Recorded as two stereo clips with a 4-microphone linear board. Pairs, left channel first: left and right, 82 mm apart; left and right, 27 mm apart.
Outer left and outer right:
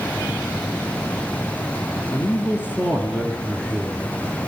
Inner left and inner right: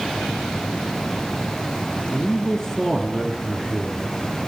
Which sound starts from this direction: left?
A man speaking, at 2.1 s.